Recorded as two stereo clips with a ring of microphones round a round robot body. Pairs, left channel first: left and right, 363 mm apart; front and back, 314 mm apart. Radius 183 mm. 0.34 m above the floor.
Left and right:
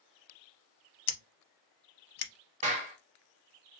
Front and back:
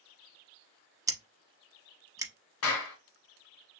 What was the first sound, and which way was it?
Scissors, 100° left.